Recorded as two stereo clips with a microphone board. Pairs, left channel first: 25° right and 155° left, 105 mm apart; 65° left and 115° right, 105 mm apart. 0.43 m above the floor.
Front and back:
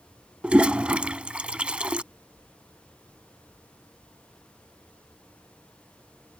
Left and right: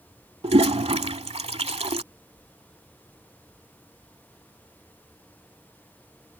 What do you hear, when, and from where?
0.4 s a toilet flushing: 125° right